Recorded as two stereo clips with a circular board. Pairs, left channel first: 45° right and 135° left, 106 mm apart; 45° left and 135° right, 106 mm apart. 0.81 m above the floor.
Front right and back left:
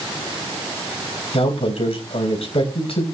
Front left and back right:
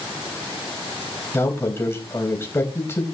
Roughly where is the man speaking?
Ahead.